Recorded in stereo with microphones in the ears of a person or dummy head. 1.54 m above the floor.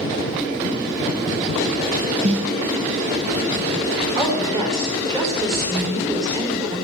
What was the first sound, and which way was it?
A snare drum, 40° right (ahead or behind).